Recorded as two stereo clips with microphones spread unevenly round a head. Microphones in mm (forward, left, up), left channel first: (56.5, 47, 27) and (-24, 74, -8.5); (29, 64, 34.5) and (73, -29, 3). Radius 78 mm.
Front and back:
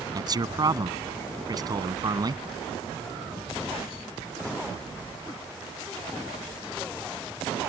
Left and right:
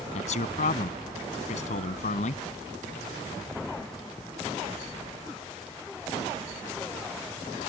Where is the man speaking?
115° left.